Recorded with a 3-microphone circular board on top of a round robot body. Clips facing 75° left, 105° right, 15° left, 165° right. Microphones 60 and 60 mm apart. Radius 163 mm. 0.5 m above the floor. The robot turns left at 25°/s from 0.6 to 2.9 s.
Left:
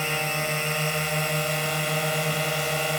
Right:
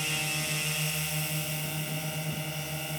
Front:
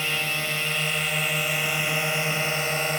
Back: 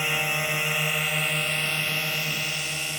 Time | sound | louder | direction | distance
0.0 | a drone | left 7 dB, back 1 dB | 120° left | ?